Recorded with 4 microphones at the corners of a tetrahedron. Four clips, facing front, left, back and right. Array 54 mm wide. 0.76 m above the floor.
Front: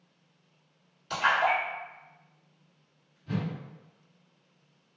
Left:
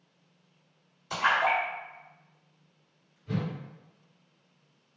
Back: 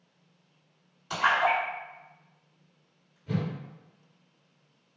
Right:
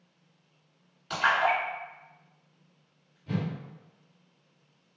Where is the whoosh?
105° right, 1.9 m.